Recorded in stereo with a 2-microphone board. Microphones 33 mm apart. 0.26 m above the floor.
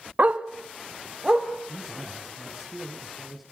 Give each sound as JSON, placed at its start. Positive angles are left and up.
{"t": 0.2, "sound": "a dog barking", "side_deg": -45, "distance_m": 0.8}
{"t": 1.7, "sound": "a man speaking", "side_deg": -10, "distance_m": 4.0}